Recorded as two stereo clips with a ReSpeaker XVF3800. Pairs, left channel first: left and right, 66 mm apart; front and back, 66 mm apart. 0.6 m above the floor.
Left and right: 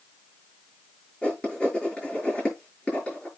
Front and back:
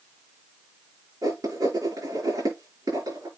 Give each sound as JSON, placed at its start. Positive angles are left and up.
{"t": 1.2, "sound": "writing", "azimuth_deg": 165, "distance_m": 7.0}